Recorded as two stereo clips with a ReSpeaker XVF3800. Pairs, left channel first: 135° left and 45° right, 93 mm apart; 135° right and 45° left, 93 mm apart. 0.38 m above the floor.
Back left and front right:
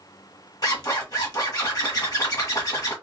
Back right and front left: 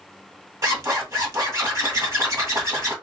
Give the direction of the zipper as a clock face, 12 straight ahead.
9 o'clock.